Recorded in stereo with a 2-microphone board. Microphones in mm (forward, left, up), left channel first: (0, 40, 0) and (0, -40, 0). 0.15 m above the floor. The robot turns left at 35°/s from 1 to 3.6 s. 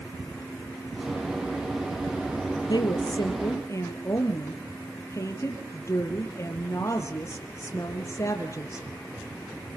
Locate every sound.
2.7 s a woman speaking: 75° left, 3 m; by 8.8 s 40° left, 3 m